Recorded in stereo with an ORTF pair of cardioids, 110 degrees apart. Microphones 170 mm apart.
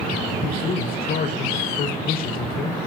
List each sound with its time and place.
0.4 s a man speaking: 55° left, 5 m